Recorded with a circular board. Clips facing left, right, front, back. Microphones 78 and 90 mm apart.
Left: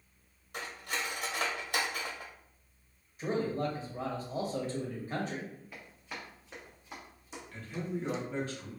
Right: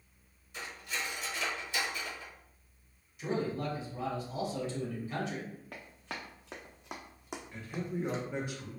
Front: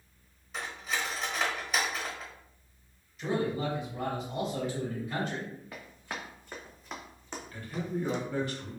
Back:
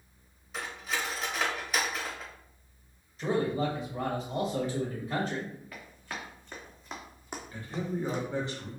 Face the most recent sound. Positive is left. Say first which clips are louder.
# left 1 dB, even
turn(degrees=-145)